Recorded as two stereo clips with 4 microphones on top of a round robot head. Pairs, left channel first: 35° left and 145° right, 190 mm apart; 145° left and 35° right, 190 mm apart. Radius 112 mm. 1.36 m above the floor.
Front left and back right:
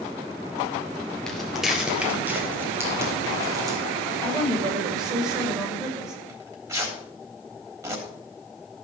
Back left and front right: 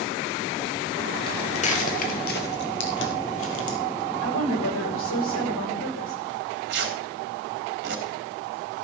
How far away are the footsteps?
About 1.4 m.